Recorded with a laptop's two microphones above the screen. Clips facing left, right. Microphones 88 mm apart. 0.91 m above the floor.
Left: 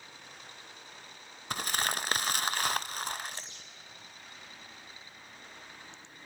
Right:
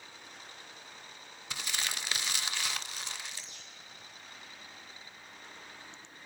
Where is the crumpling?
45° left (ahead or behind), 0.7 m.